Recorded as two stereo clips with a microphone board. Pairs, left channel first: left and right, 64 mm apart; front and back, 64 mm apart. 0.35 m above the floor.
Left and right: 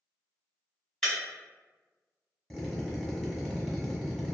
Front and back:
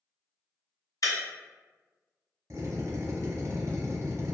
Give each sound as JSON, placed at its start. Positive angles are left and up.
{"t": 1.0, "sound": "breaking glass", "azimuth_deg": 10, "distance_m": 1.5}
{"t": 2.5, "sound": "a drill", "azimuth_deg": 180, "distance_m": 0.9}